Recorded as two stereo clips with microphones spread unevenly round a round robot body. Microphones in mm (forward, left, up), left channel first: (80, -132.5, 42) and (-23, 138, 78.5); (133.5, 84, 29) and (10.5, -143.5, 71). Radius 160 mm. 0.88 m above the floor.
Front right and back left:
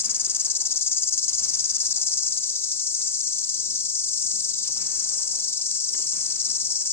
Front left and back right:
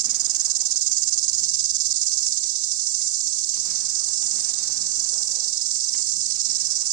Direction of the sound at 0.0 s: 150° right.